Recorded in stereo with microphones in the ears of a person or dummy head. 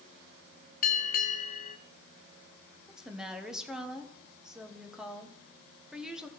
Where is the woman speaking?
Centre (ahead or behind), 1.3 m.